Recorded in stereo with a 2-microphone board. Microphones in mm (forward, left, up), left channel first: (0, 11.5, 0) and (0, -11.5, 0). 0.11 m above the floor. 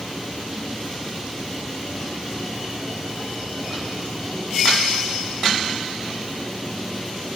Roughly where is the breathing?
I don't hear breathing.